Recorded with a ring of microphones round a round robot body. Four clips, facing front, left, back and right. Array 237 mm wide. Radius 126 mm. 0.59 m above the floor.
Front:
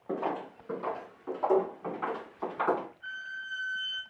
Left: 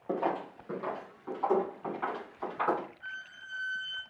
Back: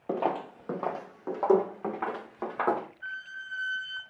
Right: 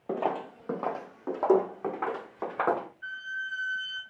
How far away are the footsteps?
About 0.6 m.